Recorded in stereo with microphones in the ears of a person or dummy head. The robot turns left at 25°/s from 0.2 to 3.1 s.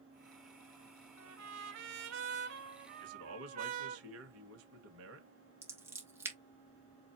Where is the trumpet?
95° right, 0.9 m; by 4.0 s 140° right, 0.9 m.